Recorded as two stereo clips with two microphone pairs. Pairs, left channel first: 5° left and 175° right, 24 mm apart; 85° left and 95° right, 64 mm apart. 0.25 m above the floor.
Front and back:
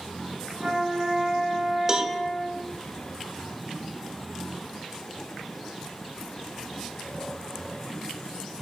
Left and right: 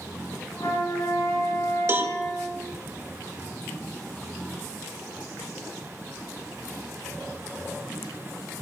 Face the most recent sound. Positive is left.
turn(degrees=-130)